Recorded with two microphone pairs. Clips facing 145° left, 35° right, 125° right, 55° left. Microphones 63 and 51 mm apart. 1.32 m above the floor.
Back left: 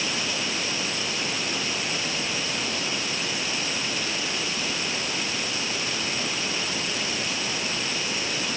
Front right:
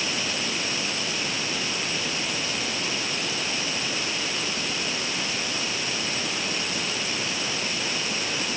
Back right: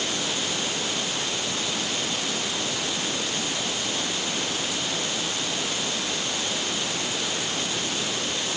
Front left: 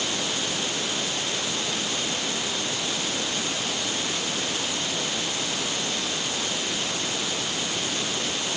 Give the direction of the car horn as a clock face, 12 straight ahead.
I don't hear a car horn.